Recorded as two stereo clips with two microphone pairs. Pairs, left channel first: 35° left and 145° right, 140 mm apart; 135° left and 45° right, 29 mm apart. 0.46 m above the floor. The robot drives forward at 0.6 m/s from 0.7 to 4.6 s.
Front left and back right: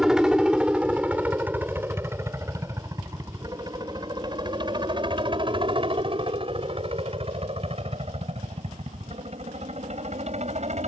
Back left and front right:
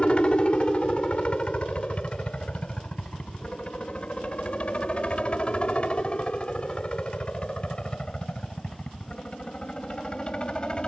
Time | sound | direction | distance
0.0 | a helicopter | 135° left | ?